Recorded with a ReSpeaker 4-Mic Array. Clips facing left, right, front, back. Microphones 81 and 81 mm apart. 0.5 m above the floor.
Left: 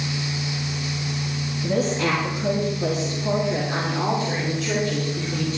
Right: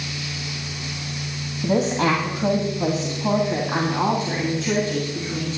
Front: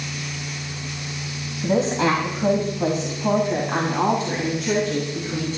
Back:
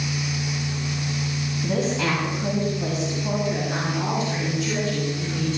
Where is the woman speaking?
60° right, 2.5 m; by 5.6 s 30° right, 4 m.